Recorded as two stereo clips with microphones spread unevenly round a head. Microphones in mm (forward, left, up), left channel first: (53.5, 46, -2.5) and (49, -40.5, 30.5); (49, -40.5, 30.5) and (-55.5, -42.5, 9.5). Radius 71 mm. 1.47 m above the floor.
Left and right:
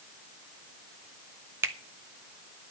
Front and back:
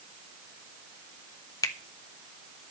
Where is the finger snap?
45° right, 1.2 m.